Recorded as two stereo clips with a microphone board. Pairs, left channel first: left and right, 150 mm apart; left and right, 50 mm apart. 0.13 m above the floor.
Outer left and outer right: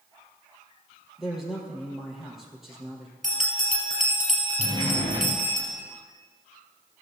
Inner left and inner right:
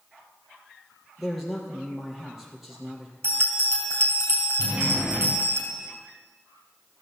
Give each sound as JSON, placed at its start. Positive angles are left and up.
{"t": 1.2, "sound": "a man speaking", "side_deg": 0, "distance_m": 3.5}
{"t": 3.2, "sound": "a bell", "side_deg": -60, "distance_m": 3.0}
{"t": 4.6, "sound": "a sliding door", "side_deg": -30, "distance_m": 3.0}